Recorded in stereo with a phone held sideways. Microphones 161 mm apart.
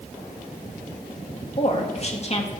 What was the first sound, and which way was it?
A woman speaking, 45° left (ahead or behind).